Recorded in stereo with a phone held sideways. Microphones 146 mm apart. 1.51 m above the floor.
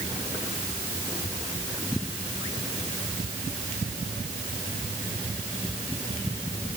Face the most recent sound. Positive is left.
No sound to turn to.